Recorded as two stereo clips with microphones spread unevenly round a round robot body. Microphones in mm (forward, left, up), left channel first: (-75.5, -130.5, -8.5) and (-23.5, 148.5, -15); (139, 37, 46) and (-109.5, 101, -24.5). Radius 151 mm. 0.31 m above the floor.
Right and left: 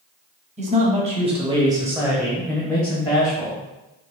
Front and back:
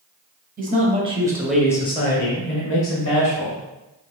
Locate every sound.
0.6 s a man speaking: 140° left, 1.5 m; by 3.6 s 25° right, 1.8 m